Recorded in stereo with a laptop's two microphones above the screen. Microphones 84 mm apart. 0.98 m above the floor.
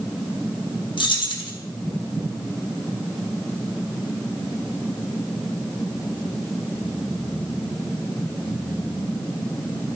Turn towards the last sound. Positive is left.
turn(degrees=80)